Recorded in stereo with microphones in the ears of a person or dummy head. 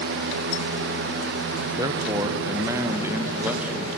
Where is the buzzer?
I don't hear a buzzer.